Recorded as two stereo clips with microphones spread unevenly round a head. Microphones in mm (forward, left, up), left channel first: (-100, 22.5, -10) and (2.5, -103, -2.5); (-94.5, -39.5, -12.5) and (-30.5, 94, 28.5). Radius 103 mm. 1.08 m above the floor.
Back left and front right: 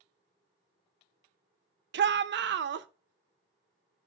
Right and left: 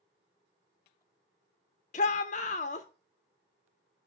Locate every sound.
1.9 s a shout: 65° right, 0.8 m